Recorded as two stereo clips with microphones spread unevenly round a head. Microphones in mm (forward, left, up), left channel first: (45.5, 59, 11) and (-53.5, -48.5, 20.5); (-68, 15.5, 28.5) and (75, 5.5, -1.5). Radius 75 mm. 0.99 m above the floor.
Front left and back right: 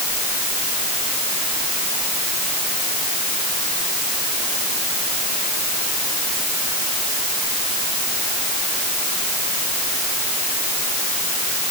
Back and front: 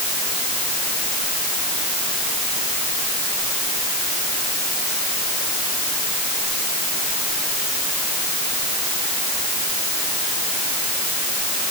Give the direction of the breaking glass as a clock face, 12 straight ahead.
No breaking glass in this recording.